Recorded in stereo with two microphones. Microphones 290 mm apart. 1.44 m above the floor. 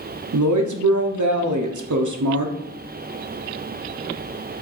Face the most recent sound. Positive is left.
turn(degrees=-85)